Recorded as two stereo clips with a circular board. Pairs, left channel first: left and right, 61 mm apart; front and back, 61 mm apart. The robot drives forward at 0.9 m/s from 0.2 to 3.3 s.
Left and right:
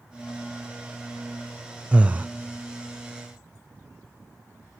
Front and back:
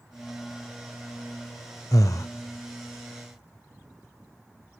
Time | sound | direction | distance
1.9 | breathing | 20° right | 0.8 m